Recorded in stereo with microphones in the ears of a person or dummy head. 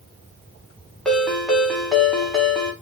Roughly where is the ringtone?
Centre.